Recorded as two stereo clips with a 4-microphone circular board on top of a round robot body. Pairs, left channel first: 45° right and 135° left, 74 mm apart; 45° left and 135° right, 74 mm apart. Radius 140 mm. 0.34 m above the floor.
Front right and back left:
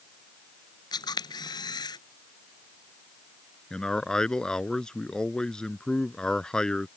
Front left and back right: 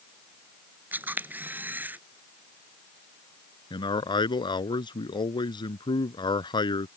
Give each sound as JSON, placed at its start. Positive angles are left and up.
{"t": 0.9, "sound": "a camera shutter", "azimuth_deg": -70}
{"t": 3.7, "sound": "a man speaking", "azimuth_deg": 35}